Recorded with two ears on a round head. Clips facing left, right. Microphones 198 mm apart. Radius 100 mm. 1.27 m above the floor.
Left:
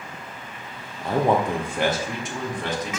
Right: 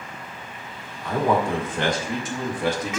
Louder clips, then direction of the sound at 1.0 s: Left 1 dB; 30° left (ahead or behind).